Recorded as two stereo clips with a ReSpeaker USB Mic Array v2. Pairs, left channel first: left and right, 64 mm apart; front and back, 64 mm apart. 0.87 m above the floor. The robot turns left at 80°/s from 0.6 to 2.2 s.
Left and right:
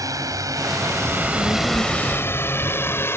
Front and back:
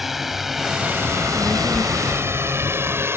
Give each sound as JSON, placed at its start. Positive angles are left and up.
{"t": 0.0, "sound": "a drone", "azimuth_deg": -95}
{"t": 1.1, "sound": "a child speaking", "azimuth_deg": 115}